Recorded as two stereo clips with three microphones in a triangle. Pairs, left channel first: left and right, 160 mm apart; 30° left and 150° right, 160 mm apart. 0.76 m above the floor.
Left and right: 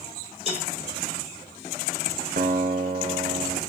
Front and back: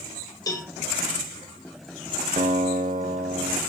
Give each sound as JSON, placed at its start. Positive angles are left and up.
{"t": 0.5, "sound": "a cowbell", "azimuth_deg": -40, "distance_m": 1.6}
{"t": 2.4, "sound": "a guitar", "azimuth_deg": -115, "distance_m": 1.1}